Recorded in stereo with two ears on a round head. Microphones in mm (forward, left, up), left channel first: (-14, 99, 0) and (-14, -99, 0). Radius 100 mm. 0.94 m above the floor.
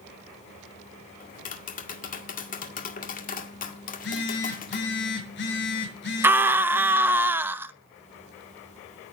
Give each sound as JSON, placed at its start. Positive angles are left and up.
{"t": 1.2, "sound": "tapping", "side_deg": 40, "distance_m": 1.9}
{"t": 3.9, "sound": "a phone buzzing", "side_deg": 55, "distance_m": 6.0}
{"t": 6.2, "sound": "a scream", "side_deg": -10, "distance_m": 0.7}